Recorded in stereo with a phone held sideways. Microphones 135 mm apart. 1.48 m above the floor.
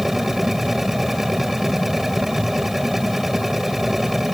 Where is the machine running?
Centre (ahead or behind).